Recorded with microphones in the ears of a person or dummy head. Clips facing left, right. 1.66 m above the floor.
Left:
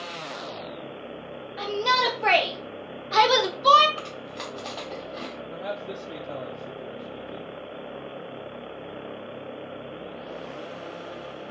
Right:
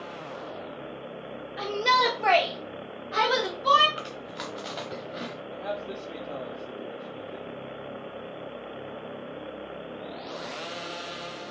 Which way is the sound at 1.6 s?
20° right (ahead or behind).